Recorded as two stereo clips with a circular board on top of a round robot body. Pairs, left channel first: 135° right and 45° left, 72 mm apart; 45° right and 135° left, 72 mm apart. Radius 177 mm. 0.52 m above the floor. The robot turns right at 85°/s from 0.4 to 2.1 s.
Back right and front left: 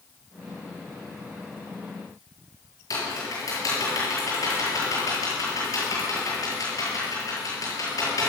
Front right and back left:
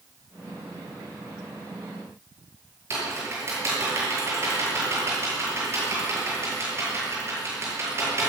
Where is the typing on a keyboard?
175° right, 8 m.